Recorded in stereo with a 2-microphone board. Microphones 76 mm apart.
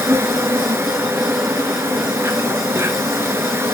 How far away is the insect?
About 1.1 m.